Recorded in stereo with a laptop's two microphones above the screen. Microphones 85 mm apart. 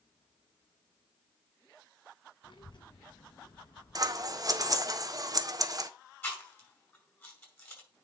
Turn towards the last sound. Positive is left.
turn(degrees=25)  # may be behind; listen again after turning